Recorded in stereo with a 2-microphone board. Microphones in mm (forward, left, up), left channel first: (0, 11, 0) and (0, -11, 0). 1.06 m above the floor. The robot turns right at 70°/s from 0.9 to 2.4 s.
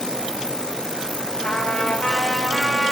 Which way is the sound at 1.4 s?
90° left.